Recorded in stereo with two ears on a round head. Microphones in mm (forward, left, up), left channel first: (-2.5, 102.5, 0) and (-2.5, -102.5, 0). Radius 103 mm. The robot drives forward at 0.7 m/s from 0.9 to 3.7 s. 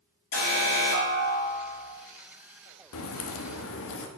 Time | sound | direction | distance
0.3 | an alarm | 65° left (ahead or behind) | 2.5 m
2.9 | a crack | 70° left (ahead or behind) | 1.1 m